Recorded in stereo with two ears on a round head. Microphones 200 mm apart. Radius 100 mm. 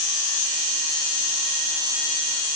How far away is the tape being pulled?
I don't hear tape being pulled.